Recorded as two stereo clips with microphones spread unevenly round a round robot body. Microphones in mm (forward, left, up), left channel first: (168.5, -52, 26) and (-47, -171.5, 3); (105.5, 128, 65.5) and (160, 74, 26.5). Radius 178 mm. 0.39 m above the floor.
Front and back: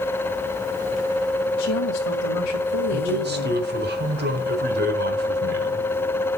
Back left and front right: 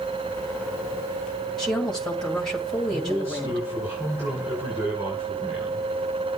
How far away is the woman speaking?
About 2.5 m.